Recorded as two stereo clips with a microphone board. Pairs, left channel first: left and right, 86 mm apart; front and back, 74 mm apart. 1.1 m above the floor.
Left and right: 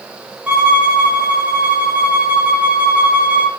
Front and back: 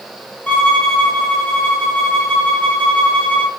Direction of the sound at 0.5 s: 40° right.